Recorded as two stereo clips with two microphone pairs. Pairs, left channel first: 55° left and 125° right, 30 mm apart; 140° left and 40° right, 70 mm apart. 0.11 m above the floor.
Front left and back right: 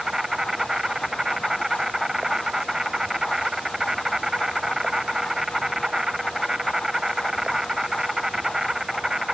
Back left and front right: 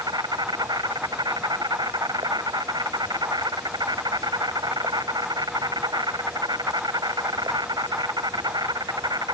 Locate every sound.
0.0 s an insect: 50° right